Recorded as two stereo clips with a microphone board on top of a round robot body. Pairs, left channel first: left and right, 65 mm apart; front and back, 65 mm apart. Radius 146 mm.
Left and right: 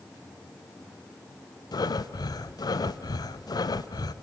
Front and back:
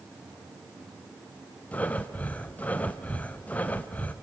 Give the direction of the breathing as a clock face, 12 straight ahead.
10 o'clock.